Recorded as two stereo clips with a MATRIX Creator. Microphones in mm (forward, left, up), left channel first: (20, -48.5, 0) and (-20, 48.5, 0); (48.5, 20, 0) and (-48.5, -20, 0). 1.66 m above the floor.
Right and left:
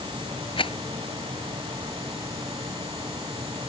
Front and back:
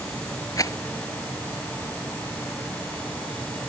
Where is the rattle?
35° right.